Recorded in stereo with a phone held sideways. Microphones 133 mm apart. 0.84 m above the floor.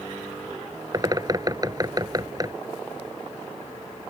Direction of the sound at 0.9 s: 30° right (ahead or behind).